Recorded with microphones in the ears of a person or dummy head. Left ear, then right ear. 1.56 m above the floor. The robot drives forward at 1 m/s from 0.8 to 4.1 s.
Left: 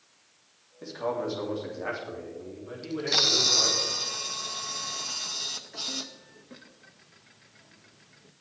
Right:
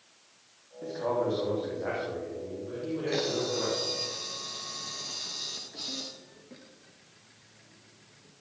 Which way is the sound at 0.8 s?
85° left.